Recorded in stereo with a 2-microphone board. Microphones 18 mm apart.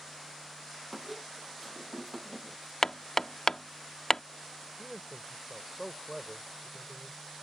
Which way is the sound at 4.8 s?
15° right (ahead or behind).